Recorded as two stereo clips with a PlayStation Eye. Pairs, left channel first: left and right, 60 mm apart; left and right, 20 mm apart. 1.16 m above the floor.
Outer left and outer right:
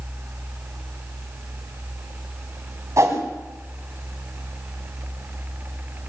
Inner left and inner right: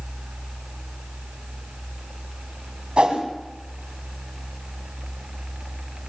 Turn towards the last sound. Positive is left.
turn(degrees=-55)  # may be behind; listen again after turning